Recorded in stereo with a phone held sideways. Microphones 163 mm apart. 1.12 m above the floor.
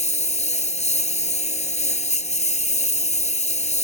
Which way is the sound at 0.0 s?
45° left (ahead or behind).